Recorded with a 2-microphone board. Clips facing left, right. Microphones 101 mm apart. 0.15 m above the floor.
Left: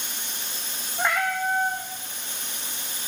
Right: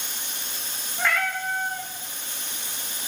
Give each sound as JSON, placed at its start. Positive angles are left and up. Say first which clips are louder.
{"t": 1.0, "sound": "a cat meowing", "louder": "left 1 dB", "side_deg": 20, "distance_m": 5.0}